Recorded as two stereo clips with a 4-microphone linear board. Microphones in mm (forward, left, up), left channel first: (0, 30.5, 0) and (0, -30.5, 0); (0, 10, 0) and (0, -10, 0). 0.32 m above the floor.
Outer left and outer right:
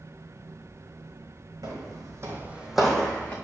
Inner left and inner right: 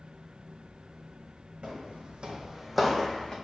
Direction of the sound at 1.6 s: 80° right.